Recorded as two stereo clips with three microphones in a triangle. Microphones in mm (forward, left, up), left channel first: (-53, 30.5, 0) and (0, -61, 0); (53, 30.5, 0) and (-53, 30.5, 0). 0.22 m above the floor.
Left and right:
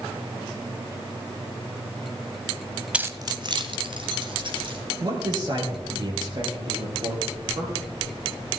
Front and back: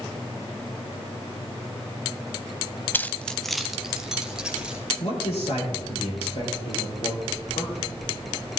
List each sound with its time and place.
2.9 s keys jangling: straight ahead, 0.6 m; by 4.8 s 95° right, 3 m
5.0 s a man speaking: 10° right, 5 m